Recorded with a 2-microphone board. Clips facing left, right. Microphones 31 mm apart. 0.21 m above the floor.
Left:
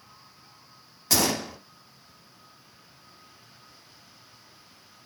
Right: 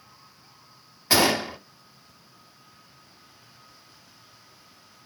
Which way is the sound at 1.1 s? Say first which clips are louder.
Right 5 dB; 35° right (ahead or behind).